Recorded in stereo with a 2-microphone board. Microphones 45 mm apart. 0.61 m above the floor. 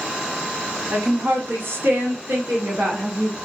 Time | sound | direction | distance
0.9 | a woman speaking | 50° right (ahead or behind) | 1.2 m